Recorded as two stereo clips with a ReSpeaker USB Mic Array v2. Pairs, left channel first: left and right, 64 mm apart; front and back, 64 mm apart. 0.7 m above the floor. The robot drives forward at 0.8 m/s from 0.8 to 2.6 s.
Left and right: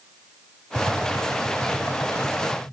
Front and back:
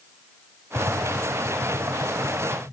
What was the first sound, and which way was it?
Tapping, 75° right.